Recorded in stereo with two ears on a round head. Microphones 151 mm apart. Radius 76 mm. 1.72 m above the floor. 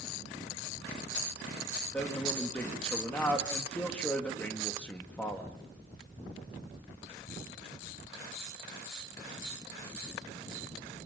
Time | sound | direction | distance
1.9 | a man speaking | 10° left (ahead or behind) | 2.5 m